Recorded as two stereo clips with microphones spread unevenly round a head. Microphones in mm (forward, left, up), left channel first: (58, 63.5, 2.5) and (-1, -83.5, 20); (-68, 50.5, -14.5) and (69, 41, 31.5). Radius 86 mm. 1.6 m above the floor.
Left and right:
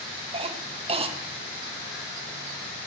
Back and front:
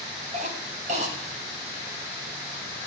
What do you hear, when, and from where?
0.3 s a cough: 55° right, 2.5 m